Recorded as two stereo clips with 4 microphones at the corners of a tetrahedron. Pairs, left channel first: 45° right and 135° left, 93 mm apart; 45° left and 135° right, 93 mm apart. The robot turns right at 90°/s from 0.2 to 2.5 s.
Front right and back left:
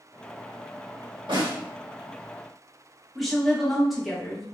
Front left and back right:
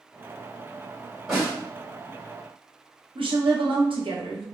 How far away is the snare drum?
About 1.9 m.